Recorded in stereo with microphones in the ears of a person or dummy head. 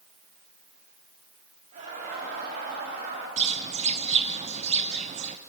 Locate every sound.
1.7 s laughter: 45° right (ahead or behind), 3 m; by 3.3 s 55° right (ahead or behind), 5 m
3.4 s a bird: 35° right (ahead or behind), 0.6 m